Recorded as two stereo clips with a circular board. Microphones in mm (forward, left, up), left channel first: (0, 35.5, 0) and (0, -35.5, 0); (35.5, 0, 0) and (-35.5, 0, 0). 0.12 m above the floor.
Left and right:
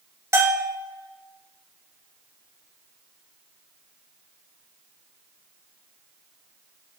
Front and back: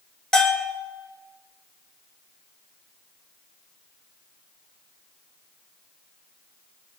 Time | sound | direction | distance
0.3 | a bell | 80° right | 2 m